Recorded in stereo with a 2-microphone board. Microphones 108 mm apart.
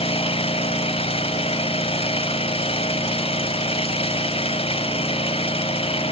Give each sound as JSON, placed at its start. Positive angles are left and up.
{"t": 0.0, "sound": "an engine running", "side_deg": 65, "distance_m": 0.9}